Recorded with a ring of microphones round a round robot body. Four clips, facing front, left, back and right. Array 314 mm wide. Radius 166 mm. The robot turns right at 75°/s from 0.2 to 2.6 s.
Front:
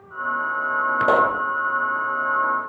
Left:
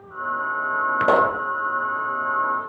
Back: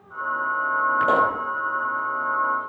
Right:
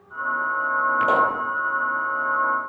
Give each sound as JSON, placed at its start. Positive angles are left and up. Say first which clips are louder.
{"t": 1.0, "sound": "a pop", "louder": "left 4 dB, front 4 dB", "azimuth_deg": 50, "distance_m": 1.7}